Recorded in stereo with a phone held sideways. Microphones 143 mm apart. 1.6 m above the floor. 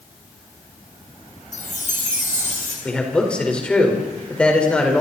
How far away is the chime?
About 5.5 m.